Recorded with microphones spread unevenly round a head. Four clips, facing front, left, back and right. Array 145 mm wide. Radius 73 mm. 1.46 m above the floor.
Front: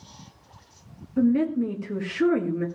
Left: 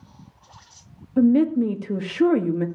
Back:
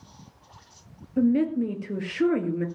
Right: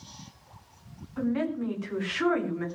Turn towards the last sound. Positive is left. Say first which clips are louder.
# left 11 dB, front 1 dB
turn(degrees=100)